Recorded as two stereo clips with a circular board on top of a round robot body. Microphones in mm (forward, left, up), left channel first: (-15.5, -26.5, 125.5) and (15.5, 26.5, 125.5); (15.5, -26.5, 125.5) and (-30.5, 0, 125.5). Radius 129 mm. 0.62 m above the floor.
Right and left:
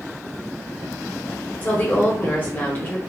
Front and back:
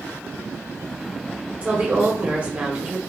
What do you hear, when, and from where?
1.6 s a woman speaking: 160° right, 1.1 m